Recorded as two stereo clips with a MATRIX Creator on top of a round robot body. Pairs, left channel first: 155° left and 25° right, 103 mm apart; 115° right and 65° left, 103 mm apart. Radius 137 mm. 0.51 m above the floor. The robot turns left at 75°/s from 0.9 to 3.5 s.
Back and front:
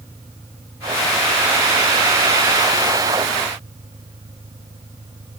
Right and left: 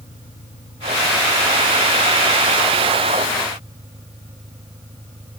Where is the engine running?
130° right; by 5.4 s 35° left.